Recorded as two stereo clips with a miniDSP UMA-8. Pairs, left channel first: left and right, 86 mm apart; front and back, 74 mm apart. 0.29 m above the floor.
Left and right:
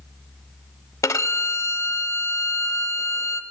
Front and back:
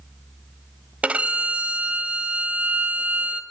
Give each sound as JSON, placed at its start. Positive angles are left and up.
{"t": 1.0, "sound": "a violin", "azimuth_deg": 120, "distance_m": 0.6}